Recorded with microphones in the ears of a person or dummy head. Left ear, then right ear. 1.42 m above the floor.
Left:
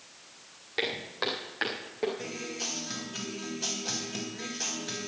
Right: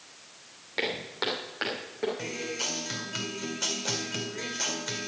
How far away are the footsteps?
About 3.5 m.